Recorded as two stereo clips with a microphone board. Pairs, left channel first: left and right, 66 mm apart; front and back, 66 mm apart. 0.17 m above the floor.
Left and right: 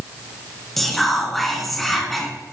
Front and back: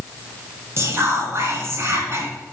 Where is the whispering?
175° left, 1.9 m.